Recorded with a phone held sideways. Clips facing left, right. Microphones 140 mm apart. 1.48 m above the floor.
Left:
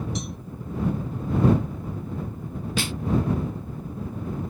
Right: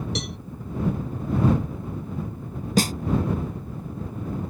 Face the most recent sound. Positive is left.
turn(degrees=-40)  # may be behind; listen again after turning